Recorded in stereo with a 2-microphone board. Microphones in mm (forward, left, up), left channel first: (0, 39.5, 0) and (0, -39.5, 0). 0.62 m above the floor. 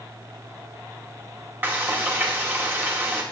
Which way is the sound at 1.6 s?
25° right (ahead or behind).